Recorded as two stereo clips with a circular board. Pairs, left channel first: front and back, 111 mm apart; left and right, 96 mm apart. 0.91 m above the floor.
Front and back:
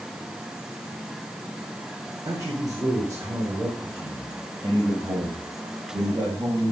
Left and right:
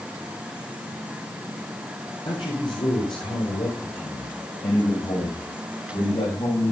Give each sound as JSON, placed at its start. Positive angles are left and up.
{"t": 2.2, "sound": "a man speaking", "azimuth_deg": 120, "distance_m": 4.0}